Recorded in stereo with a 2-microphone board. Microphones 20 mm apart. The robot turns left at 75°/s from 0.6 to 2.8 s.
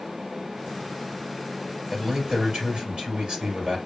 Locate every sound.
1.9 s a man speaking: 30° right, 2 m; by 3.8 s 95° right, 2 m